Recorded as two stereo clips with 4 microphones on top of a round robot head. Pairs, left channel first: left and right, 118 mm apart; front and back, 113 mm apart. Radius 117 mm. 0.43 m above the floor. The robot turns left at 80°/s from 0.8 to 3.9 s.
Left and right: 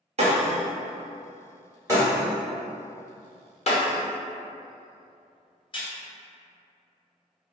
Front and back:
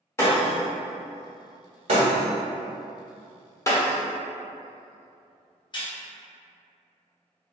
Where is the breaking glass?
65° right, 1.0 m; by 5.9 s 45° left, 1.0 m.